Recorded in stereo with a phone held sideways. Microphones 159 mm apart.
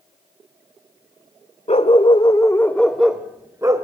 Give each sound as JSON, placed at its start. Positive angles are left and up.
{"t": 1.7, "sound": "a dog barking", "side_deg": 45, "distance_m": 1.5}